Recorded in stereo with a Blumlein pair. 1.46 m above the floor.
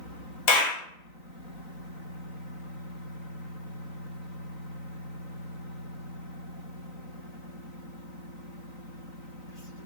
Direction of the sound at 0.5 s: 45° left.